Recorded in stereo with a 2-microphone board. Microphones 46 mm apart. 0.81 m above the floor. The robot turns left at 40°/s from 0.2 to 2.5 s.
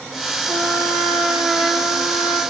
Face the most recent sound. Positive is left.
turn(degrees=-160)